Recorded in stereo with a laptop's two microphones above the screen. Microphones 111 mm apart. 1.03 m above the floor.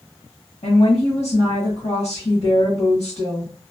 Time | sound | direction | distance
0.6 | a woman speaking | 80° left | 1.2 m